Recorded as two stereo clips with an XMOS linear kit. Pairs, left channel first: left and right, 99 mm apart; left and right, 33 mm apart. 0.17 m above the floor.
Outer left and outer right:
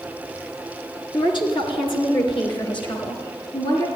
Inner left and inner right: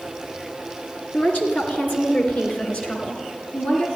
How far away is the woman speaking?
About 2.5 m.